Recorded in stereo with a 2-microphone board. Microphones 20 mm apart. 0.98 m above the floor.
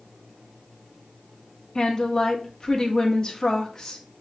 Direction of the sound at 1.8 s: 30° left (ahead or behind).